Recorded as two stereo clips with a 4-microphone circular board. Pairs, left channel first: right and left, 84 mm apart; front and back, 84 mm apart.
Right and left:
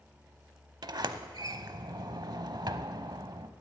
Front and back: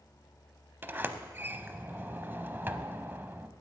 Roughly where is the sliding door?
Behind left.